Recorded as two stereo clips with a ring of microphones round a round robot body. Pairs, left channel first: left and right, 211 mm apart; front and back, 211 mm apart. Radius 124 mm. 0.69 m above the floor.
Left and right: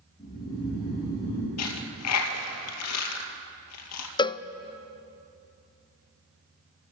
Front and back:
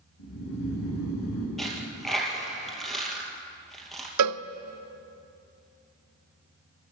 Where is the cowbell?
160° left, 0.5 m.